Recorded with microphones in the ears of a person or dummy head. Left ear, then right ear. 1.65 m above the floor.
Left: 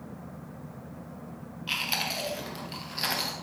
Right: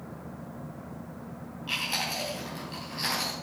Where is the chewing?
15° left (ahead or behind), 3.5 m.